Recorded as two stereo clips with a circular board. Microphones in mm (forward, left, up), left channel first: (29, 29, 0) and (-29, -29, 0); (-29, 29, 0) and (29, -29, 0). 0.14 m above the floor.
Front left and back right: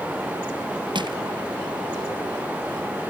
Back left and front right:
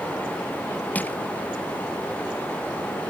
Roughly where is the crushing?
Behind right.